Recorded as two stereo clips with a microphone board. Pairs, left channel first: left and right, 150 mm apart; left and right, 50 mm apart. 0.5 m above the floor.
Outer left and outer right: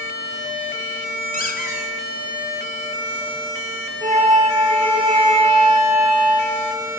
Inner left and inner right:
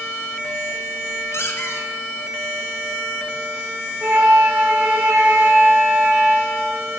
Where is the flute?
50° right (ahead or behind), 2 m.